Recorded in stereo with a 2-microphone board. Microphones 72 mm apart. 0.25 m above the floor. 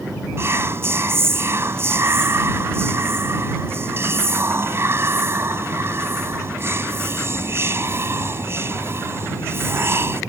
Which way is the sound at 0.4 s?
35° right (ahead or behind).